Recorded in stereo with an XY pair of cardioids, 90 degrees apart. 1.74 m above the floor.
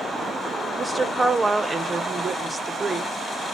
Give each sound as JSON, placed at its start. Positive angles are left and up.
{"t": 0.8, "sound": "a woman speaking", "azimuth_deg": -25, "distance_m": 0.7}